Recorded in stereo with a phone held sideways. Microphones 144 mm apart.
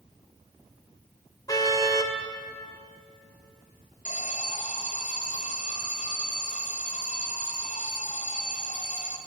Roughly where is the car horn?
Left.